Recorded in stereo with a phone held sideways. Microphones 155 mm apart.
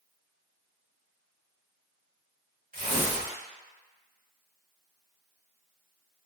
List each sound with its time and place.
2.7 s tearing paper: 65° right (ahead or behind), 1.1 m